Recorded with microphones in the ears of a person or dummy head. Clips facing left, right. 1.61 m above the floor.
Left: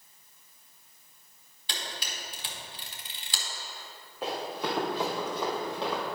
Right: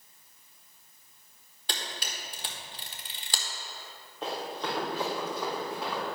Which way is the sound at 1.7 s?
45° right (ahead or behind).